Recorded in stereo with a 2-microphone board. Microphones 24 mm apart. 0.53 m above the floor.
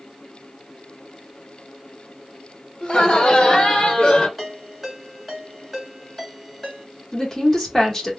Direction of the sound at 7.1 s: 15° left (ahead or behind).